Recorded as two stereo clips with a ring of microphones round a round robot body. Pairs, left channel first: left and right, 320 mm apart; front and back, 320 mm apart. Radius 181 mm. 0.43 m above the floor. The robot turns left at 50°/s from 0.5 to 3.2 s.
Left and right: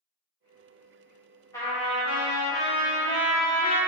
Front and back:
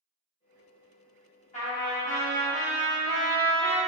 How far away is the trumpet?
About 1.3 m.